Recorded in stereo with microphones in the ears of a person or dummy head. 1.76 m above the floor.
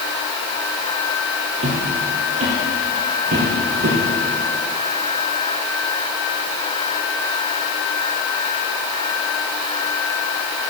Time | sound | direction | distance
1.6 | footsteps | 40° right (ahead or behind) | 2.5 m